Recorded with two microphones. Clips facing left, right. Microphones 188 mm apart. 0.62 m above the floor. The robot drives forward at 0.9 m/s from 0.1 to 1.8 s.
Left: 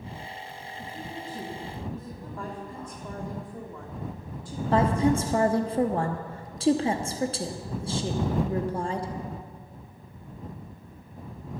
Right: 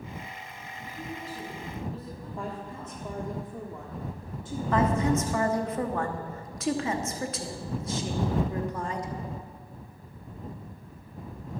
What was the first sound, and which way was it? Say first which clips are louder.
A woman speaking: even; 55° left (ahead or behind).